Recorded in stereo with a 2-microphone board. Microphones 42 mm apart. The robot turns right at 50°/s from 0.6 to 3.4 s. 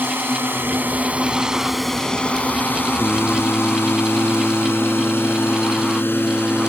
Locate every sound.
0.0 s a drone: 60° right (ahead or behind); by 6.7 s 60° left (ahead or behind)
3.0 s singing: 25° right (ahead or behind); by 6.7 s 45° right (ahead or behind)